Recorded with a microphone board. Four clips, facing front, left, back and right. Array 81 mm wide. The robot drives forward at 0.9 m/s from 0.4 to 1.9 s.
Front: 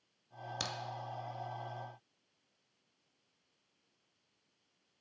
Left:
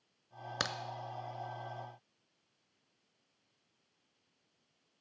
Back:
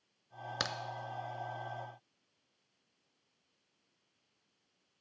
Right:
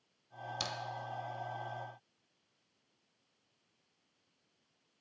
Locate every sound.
0.6 s a crack: 125° left, 0.6 m; by 0.8 s 135° left, 0.6 m